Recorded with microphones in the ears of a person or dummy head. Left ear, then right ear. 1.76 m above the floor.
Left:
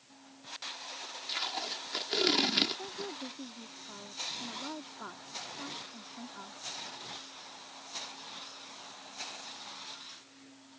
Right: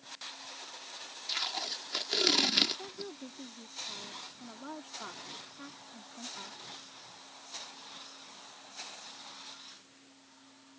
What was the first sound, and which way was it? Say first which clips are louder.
Tape being pulled: right 1 dB; 10° right (ahead or behind).